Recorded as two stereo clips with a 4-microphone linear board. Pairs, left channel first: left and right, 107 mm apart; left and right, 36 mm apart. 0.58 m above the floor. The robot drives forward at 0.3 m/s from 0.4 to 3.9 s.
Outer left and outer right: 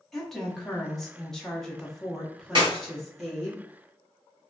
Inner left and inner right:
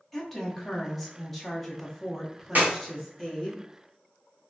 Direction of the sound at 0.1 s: 5° left (ahead or behind).